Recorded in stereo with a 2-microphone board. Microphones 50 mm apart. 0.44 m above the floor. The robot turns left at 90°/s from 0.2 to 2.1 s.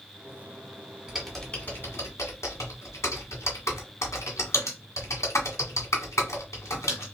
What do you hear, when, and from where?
1.1 s typing on a keyboard: 20° right (ahead or behind), 1.5 m; by 7.0 s 75° left (ahead or behind), 1.5 m